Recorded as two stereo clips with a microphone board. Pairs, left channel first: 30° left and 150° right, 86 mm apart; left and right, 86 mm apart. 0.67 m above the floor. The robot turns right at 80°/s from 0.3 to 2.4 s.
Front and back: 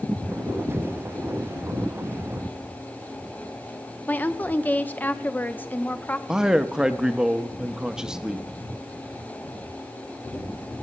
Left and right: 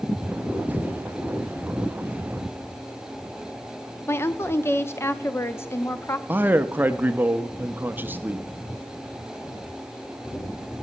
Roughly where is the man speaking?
Right.